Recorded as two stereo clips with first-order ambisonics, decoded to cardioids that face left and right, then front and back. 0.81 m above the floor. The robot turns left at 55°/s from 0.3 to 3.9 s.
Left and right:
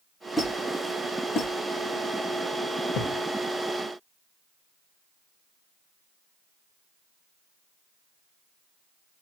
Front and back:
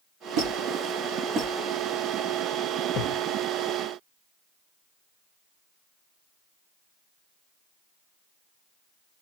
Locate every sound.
0.4 s a squeak: 170° left, 1.5 m; by 1.5 s 105° left, 1.5 m
2.9 s a thud: 50° left, 0.8 m; by 3.2 s 30° left, 0.8 m